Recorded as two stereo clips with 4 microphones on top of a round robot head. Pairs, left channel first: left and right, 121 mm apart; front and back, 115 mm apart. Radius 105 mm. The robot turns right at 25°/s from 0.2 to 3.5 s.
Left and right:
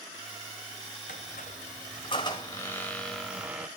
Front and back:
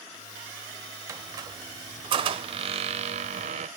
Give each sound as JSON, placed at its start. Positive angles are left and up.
{"t": 1.1, "sound": "a squeak", "azimuth_deg": 125, "distance_m": 0.6}